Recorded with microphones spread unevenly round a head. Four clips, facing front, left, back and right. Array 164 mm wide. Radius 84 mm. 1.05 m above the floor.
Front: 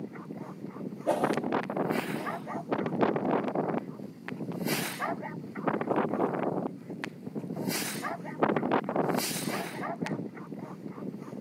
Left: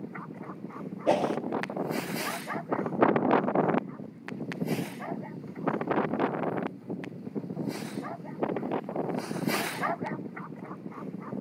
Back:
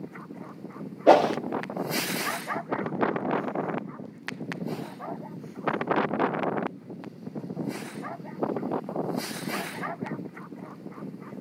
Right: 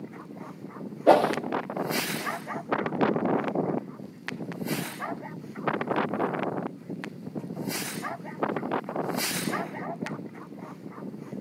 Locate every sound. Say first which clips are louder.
1.1 s a whoosh: right 6 dB, back 10 dB; 150° right, 0.9 m